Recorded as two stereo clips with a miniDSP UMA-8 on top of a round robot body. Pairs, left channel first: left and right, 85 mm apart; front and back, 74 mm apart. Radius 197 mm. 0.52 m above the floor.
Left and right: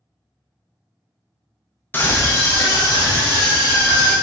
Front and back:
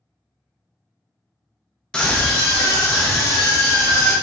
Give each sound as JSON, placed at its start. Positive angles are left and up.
{"t": 1.9, "sound": "a scream", "azimuth_deg": 65, "distance_m": 0.8}